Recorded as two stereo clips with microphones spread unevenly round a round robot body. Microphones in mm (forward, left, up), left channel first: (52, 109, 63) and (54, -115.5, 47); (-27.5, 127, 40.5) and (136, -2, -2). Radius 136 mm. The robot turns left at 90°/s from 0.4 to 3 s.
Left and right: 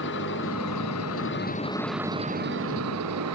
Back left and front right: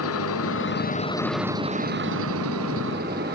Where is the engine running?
140° left; by 3.4 s 95° right.